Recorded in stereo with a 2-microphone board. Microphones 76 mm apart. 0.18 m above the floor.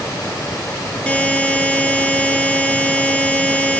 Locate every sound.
1.1 s a buzzer: 15° left (ahead or behind), 0.8 m